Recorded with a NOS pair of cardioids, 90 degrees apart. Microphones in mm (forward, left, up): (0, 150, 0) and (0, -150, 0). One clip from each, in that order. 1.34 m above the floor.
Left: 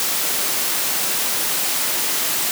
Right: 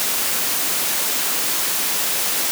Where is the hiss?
I don't hear a hiss.